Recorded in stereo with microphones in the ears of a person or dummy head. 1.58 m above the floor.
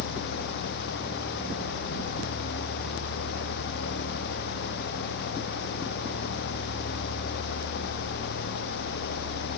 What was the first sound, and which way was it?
Only background noise.